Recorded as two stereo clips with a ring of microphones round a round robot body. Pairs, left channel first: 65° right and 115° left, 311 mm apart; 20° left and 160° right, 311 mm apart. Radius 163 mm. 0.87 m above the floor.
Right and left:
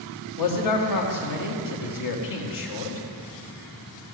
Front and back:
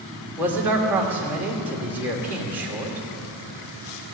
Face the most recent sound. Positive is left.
turn(degrees=-75)